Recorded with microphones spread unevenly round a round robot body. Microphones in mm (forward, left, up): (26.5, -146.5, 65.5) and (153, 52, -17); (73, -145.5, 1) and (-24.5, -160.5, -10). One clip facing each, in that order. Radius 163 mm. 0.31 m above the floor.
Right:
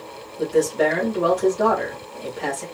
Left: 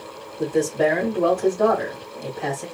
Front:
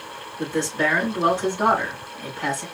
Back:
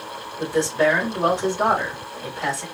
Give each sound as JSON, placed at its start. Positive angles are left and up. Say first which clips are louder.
{"t": 0.4, "sound": "a man speaking", "louder": "right 1 dB, back 4 dB", "azimuth_deg": 155, "distance_m": 1.7}